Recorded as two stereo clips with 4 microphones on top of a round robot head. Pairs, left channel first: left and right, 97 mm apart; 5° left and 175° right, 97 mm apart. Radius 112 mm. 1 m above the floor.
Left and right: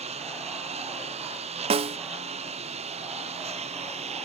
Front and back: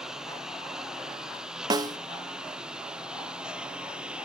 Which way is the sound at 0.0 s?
90° right.